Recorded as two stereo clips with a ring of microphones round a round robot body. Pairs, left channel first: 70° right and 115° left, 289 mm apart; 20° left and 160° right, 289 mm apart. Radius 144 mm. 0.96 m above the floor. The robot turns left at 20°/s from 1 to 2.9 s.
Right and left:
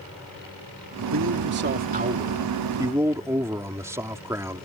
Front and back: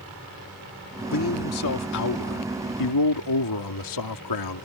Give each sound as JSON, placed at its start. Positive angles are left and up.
{"t": 1.1, "sound": "a man speaking", "azimuth_deg": 70}